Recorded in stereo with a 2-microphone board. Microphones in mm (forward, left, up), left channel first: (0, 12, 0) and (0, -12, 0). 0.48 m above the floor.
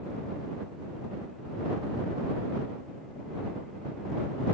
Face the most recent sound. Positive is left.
No sound to turn to.